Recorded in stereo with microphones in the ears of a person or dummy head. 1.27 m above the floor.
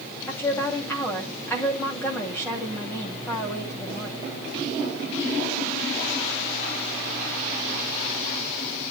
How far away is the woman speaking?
About 3 m.